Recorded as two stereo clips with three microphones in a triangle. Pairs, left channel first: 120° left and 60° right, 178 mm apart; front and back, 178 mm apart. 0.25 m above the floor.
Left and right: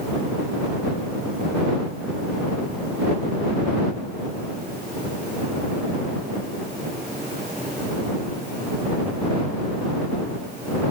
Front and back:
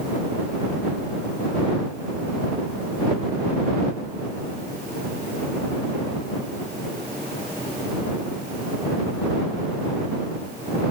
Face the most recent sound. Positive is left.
No sound to turn to.